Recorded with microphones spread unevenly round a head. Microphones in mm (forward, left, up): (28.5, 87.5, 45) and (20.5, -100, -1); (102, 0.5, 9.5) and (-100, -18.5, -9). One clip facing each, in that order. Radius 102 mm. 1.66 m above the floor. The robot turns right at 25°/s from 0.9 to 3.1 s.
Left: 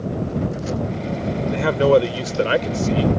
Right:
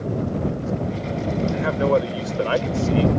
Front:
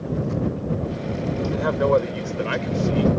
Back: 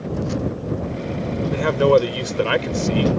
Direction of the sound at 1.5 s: 125° left.